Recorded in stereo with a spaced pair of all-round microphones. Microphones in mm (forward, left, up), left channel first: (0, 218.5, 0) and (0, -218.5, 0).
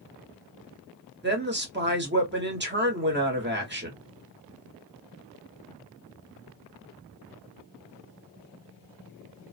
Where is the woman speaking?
25° right (ahead or behind), 1.2 m.